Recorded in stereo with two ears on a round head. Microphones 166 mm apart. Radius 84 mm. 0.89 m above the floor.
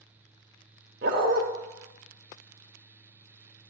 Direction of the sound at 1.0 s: 55° right (ahead or behind).